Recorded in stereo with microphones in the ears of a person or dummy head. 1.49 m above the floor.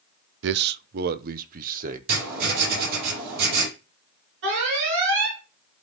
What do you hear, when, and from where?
0.4 s a man speaking: 70° right (ahead or behind), 0.5 m; by 2.0 s 45° right (ahead or behind), 1.3 m
2.1 s writing: 55° right (ahead or behind), 6.5 m
4.4 s an alarm: 70° right (ahead or behind), 4.5 m